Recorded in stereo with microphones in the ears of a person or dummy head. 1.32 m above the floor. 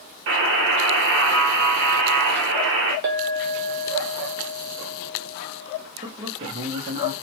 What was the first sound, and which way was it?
A buzzer, 55° right (ahead or behind).